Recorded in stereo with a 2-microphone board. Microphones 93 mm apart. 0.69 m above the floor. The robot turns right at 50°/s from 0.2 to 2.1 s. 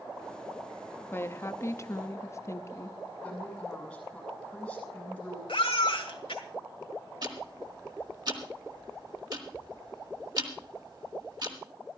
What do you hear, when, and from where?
1.1 s a woman speaking: 50° left, 0.7 m; by 3.0 s 100° left, 0.7 m
3.2 s a woman speaking: 10° left (ahead or behind), 7 m
5.5 s a baby crying: 85° left, 1.7 m
7.2 s ticking: 50° right (ahead or behind), 1.9 m